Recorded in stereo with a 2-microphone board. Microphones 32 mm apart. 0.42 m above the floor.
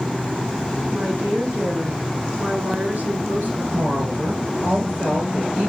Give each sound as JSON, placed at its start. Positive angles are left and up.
{"t": 0.9, "sound": "a woman speaking", "side_deg": -75, "distance_m": 5.5}
{"t": 3.7, "sound": "a woman speaking", "side_deg": -80, "distance_m": 7.0}